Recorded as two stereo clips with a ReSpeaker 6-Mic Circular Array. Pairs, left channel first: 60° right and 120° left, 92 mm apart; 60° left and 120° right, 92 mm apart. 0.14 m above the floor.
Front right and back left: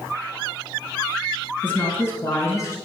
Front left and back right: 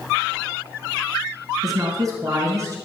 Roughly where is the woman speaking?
Behind right.